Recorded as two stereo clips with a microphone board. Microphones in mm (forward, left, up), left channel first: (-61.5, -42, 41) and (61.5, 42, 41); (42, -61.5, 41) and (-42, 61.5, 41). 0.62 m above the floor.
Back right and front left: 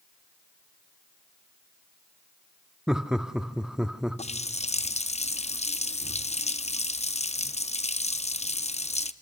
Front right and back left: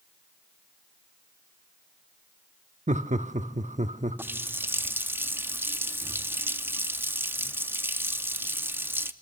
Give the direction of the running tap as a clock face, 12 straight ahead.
5 o'clock.